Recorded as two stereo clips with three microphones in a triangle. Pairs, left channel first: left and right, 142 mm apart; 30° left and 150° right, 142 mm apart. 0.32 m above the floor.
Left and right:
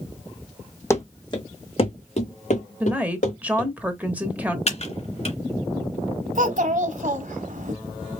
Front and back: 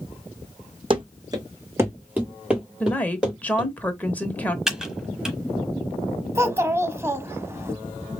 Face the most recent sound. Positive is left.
turn(degrees=-80)